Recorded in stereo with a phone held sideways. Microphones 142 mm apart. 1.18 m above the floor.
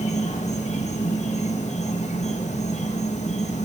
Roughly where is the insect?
Left.